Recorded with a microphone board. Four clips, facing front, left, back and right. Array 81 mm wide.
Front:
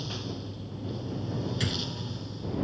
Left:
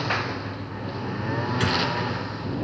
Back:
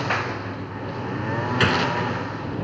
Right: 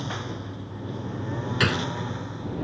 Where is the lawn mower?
155° left; by 2.6 s 160° left.